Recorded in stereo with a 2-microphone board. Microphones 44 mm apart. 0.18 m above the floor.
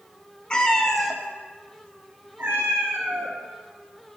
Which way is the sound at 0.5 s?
20° left (ahead or behind).